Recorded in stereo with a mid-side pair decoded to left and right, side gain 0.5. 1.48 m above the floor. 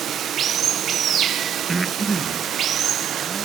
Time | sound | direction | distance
0.0 | running water | 55° right | 0.9 m
1.7 | breathing | 25° right | 1.3 m